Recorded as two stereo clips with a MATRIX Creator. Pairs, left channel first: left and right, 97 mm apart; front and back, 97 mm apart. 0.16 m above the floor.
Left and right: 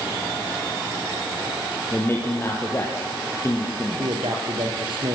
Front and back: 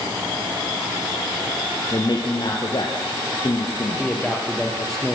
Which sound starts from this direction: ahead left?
A man speaking, at 1.9 s.